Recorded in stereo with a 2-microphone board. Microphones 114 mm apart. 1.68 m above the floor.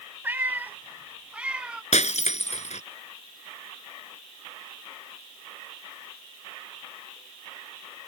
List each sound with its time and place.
0.2 s a cat meowing: 15° right (ahead or behind); by 1.8 s 10° right (ahead or behind)
1.9 s breaking glass: 80° left